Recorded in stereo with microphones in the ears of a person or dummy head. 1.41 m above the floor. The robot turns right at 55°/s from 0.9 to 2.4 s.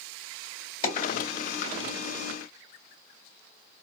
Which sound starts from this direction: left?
A dropped coin, at 0.8 s.